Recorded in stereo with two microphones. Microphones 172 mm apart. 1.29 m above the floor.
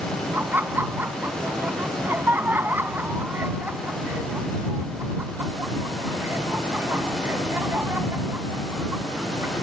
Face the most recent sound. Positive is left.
turn(degrees=-10)  # may be behind; listen again after turning